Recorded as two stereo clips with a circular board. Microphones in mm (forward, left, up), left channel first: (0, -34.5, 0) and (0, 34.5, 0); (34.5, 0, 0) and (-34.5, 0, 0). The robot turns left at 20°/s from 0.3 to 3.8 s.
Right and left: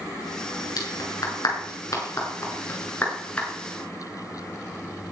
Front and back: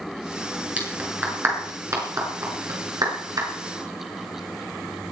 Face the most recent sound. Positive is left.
turn(degrees=-170)